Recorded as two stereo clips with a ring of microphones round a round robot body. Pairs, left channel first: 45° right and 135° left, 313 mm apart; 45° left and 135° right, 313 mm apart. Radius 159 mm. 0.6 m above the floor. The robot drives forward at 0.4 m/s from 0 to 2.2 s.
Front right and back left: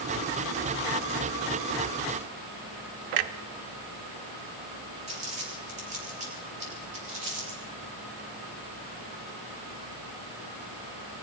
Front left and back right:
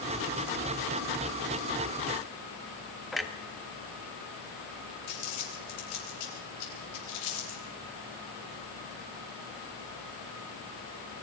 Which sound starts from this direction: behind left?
A clunk, at 3.1 s.